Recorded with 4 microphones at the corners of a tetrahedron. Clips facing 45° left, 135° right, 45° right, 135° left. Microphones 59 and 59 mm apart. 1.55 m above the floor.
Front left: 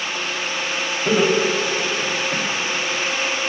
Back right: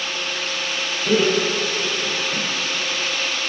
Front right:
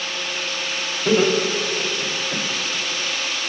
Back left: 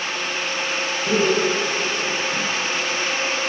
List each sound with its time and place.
1.1 s laughter: 10° right, 3.5 m